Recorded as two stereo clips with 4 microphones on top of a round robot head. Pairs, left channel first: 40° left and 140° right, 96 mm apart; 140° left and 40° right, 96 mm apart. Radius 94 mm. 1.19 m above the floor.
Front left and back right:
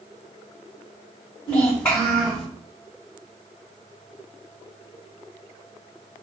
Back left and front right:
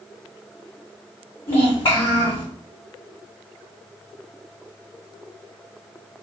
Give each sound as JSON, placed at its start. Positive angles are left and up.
{"t": 1.5, "sound": "a child speaking", "azimuth_deg": 110, "distance_m": 1.1}